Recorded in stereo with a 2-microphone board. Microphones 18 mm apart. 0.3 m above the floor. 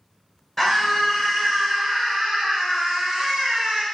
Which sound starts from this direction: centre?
A scream, at 0.6 s.